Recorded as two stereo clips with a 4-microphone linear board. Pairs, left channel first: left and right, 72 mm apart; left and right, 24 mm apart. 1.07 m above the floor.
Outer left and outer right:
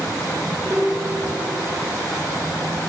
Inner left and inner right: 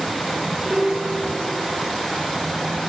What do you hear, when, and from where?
0.6 s a piano: 55° right (ahead or behind), 1.7 m